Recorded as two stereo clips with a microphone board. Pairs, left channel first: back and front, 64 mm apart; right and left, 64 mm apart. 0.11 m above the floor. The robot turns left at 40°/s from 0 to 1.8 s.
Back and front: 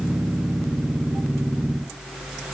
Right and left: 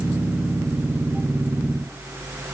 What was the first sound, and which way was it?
Only background noise.